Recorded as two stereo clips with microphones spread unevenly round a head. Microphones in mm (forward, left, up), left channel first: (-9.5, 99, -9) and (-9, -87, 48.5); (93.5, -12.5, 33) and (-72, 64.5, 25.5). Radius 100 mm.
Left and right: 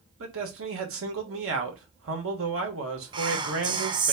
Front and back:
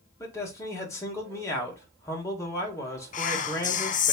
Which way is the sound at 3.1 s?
15° right.